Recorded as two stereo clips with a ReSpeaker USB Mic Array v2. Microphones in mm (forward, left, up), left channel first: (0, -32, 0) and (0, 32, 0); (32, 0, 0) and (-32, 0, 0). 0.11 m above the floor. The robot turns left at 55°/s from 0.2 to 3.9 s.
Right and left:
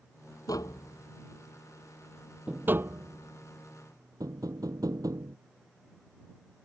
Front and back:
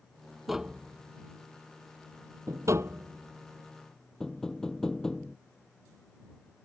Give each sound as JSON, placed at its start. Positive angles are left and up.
{"t": 0.5, "sound": "tapping", "azimuth_deg": -90}